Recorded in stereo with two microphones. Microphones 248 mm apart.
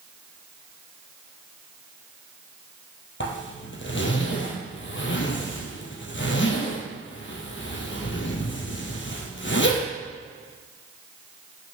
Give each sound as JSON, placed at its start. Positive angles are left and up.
{"t": 3.2, "sound": "a zipper", "side_deg": 50, "distance_m": 2.0}